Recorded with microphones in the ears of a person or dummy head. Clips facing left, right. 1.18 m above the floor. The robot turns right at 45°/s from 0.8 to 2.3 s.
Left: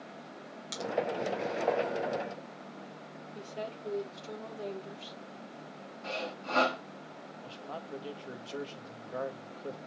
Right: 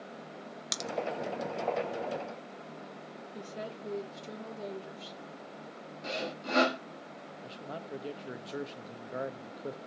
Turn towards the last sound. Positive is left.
turn(degrees=-20)  # may be behind; listen again after turning